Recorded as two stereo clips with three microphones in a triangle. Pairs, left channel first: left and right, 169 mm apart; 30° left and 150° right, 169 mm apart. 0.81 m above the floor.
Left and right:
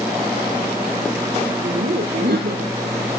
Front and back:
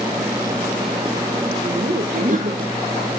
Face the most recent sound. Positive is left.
turn(degrees=-110)